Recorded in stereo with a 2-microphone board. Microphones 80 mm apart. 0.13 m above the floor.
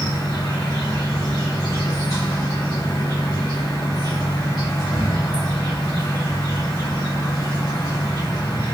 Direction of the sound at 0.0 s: 45° left (ahead or behind).